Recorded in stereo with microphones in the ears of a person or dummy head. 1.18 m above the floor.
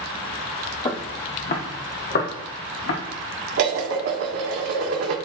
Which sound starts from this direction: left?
Footsteps, at 0.8 s.